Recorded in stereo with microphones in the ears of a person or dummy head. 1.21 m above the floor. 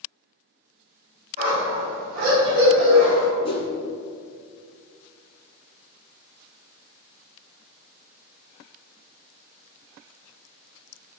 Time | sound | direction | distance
1.4 | a dog barking | 40° right (ahead or behind) | 1.7 m
3.4 | a whoosh | 25° left (ahead or behind) | 0.5 m